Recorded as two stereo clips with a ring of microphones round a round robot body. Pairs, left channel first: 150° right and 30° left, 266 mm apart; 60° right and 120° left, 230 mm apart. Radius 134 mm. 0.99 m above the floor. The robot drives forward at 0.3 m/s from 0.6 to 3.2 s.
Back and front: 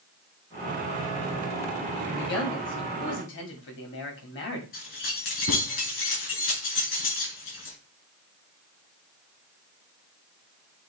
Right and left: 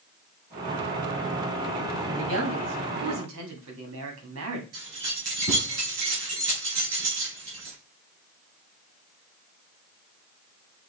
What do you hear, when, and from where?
2.1 s a man speaking: 160° left, 2.5 m; by 4.6 s 165° left, 2.5 m
4.7 s keys jangling: 165° left, 4.5 m